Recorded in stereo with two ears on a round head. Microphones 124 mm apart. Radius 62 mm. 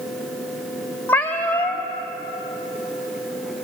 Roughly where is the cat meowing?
Centre.